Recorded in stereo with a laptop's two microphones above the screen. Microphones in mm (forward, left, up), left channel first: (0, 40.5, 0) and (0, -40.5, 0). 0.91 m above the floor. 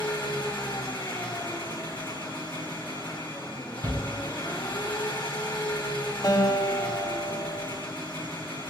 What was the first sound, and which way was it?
An engine running, 25° left (ahead or behind).